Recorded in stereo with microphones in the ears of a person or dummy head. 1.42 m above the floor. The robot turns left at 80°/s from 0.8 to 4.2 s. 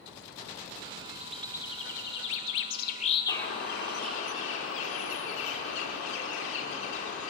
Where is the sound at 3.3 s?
150° left, 4 m; by 7.3 s 80° left, 4 m.